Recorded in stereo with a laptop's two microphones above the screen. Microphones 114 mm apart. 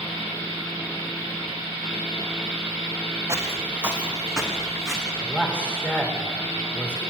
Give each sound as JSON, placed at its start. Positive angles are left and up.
{"t": 3.3, "sound": "footsteps", "side_deg": -25, "distance_m": 2.5}
{"t": 5.2, "sound": "a man speaking", "side_deg": 10, "distance_m": 3.0}